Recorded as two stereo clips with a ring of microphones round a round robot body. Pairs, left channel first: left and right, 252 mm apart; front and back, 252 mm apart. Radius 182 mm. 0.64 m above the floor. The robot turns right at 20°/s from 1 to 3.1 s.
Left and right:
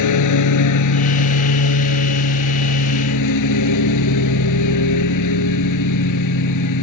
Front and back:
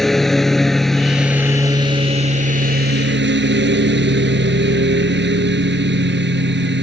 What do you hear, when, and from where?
0.0 s a lawn mower: 90° left; by 6.8 s 130° left